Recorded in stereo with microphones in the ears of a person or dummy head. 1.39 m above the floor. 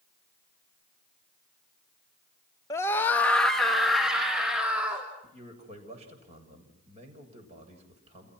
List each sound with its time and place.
2.7 s a scream: 20° left (ahead or behind), 1.8 m; by 5.1 s 10° right (ahead or behind), 4.5 m
5.2 s a man speaking: 35° right (ahead or behind), 7.5 m